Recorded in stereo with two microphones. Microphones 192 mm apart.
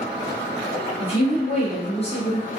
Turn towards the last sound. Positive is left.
turn(degrees=30)  # may be behind; listen again after turning